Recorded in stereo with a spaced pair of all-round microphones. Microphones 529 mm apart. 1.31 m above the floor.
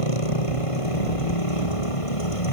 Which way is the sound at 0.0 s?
85° left.